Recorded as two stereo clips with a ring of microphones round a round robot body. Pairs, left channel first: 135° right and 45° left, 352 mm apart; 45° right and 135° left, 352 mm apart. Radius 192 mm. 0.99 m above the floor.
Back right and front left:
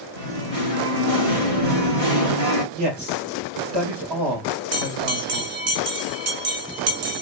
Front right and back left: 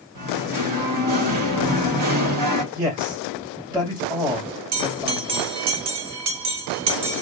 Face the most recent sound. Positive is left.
turn(degrees=95)